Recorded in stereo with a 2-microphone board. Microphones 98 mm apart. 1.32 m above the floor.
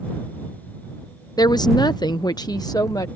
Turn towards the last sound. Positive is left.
turn(degrees=40)  # may be behind; listen again after turning